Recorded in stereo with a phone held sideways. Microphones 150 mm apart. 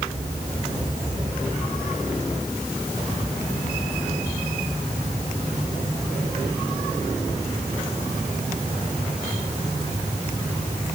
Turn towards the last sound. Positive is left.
No sound to turn to.